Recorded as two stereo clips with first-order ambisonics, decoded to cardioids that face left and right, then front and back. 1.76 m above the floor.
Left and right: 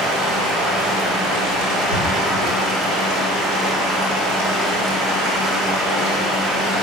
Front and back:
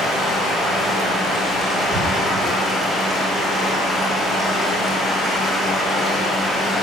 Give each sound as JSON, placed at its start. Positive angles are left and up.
{"t": 0.0, "sound": "running water", "azimuth_deg": -75, "distance_m": 4.5}